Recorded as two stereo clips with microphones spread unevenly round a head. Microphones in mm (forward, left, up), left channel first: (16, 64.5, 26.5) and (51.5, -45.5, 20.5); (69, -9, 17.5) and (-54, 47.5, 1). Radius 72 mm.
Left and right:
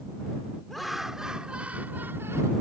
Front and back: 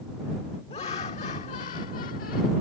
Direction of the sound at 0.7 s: 20° left.